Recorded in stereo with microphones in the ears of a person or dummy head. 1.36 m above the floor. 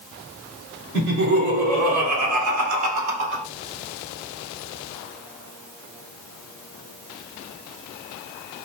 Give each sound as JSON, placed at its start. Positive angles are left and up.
{"t": 0.9, "sound": "laughter", "side_deg": -50, "distance_m": 1.9}